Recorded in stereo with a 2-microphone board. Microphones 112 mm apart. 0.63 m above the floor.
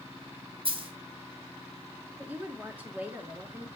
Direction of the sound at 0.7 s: 55° right (ahead or behind).